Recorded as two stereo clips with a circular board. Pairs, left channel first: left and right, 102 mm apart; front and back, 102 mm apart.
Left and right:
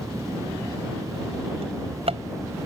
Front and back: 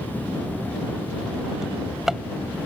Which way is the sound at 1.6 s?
90° right.